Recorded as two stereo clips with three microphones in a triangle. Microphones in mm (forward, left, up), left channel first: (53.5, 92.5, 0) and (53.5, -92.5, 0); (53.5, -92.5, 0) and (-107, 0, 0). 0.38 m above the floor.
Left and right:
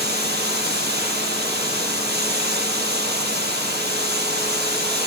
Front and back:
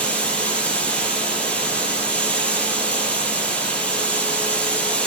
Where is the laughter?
No laughter in this recording.